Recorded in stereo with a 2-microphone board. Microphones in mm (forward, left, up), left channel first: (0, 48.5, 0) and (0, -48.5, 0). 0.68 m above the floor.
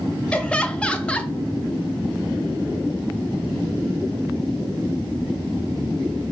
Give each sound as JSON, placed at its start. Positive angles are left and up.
{"t": 0.3, "sound": "laughter", "side_deg": 10, "distance_m": 0.5}